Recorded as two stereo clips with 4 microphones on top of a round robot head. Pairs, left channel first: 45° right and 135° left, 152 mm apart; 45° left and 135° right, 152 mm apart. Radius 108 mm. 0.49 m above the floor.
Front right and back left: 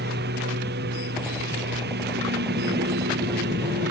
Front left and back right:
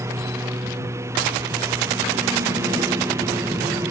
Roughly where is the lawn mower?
Behind left.